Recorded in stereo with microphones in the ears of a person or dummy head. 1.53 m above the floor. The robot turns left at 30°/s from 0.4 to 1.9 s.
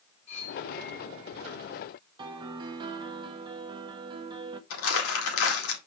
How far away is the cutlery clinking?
About 4.5 m.